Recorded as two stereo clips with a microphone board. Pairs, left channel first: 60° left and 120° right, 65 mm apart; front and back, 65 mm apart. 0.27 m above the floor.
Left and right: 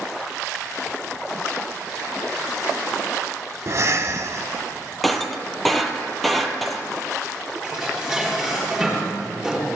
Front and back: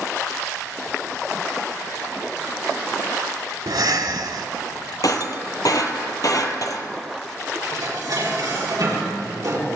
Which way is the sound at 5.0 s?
30° right.